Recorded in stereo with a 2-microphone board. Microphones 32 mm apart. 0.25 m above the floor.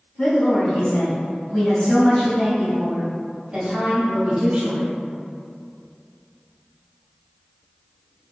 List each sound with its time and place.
0.2 s a woman speaking: 55° left (ahead or behind), 1.8 m; by 4.9 s 40° right (ahead or behind), 1.8 m